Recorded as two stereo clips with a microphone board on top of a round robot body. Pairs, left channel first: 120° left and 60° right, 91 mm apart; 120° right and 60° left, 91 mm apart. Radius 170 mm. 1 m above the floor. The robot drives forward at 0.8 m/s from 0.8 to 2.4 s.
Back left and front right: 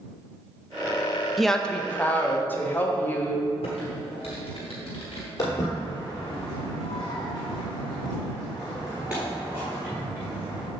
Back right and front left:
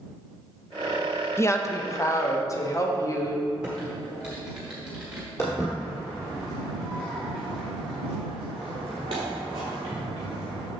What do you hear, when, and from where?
1.4 s a woman speaking: 150° right, 0.8 m; by 3.5 s 170° right, 1.3 m
3.6 s typing on a keyboard: 140° left, 0.9 m
5.4 s footsteps: straight behind, 1.8 m; by 10.7 s 10° left, 2 m